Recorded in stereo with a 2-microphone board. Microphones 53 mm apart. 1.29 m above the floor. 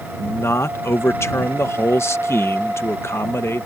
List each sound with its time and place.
0.2 s a man speaking: 55° left (ahead or behind)